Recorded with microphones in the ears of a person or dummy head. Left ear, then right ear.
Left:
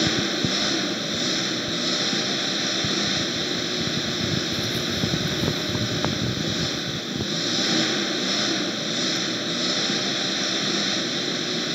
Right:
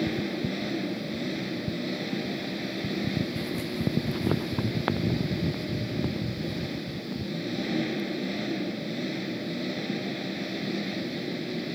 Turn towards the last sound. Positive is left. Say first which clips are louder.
# left 8 dB
turn(degrees=60)  # may be behind; listen again after turning